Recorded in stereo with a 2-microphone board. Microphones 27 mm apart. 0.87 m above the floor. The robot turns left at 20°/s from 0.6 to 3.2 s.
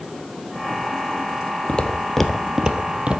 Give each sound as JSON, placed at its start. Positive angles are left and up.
{"t": 1.7, "sound": "footsteps", "side_deg": 50, "distance_m": 1.2}